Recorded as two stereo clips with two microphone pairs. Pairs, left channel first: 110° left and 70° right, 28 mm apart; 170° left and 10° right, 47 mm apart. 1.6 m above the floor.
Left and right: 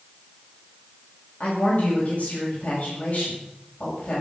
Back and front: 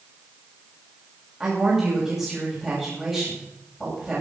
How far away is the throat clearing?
I don't hear throat clearing.